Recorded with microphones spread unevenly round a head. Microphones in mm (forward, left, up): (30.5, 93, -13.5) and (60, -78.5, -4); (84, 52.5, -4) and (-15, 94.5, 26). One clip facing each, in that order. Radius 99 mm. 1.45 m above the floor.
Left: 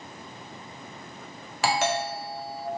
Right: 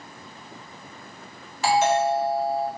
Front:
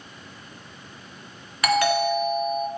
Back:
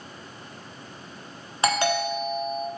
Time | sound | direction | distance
1.6 | a doorbell | 90° left | 1.3 m